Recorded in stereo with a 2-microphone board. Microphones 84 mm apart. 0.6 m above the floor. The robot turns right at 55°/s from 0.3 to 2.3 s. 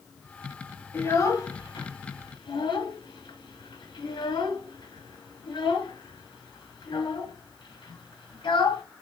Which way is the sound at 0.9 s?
25° left (ahead or behind).